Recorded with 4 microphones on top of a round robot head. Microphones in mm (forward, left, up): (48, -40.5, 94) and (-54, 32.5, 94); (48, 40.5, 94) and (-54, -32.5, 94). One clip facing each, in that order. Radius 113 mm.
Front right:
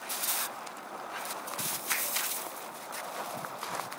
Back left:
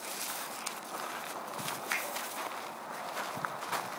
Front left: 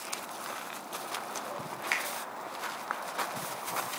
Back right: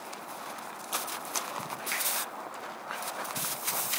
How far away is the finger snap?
About 2.5 m.